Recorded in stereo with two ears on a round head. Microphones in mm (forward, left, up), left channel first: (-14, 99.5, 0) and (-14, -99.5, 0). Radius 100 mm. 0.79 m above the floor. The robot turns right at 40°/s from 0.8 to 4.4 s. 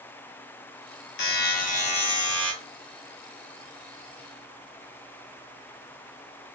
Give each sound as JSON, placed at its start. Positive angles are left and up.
{"t": 1.2, "sound": "a buzzer", "azimuth_deg": 120, "distance_m": 0.9}